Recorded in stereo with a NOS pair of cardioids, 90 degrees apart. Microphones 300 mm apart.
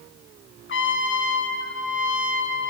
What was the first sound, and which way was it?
A trumpet, 40° left.